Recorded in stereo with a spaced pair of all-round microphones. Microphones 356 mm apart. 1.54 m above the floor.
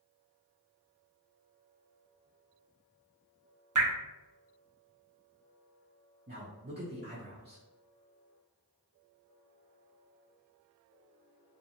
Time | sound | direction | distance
3.8 | dripping | 55° right (ahead or behind) | 0.6 m
6.3 | a man speaking | 30° right (ahead or behind) | 0.6 m